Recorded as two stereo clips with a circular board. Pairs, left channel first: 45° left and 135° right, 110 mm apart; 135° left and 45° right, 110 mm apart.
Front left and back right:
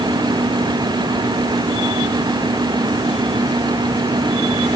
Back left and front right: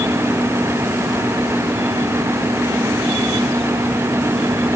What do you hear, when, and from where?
Only background noise.